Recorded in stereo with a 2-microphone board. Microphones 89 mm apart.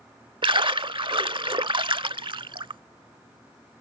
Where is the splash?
65° right (ahead or behind).